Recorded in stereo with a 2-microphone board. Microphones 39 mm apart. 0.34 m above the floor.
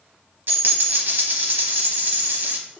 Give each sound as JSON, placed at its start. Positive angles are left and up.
{"t": 0.5, "sound": "a dropped coin", "side_deg": -65, "distance_m": 0.9}